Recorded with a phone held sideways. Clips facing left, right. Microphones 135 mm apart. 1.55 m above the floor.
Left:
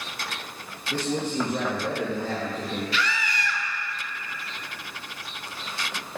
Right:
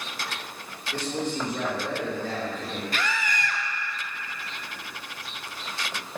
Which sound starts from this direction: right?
A scream, at 2.9 s.